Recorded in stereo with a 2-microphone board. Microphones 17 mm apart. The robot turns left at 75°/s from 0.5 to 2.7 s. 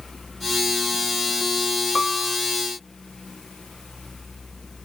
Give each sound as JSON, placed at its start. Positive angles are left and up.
{"t": 1.9, "sound": "a piano", "azimuth_deg": -170}